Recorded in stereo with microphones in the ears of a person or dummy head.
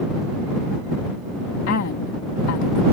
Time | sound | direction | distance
1.7 | a woman speaking | 80° left | ?